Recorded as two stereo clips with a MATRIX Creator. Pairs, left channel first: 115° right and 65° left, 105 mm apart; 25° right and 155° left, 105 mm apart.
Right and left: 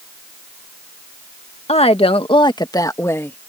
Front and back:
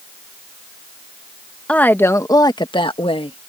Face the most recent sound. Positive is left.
turn(degrees=-40)